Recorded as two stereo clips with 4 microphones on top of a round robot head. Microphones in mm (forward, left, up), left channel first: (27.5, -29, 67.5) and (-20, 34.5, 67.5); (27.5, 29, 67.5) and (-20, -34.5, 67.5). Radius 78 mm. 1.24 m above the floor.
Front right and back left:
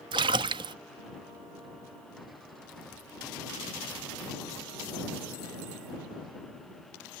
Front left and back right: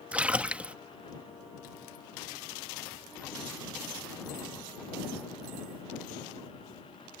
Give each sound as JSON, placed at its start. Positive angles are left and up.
{"t": 0.1, "sound": "a splash", "azimuth_deg": 160}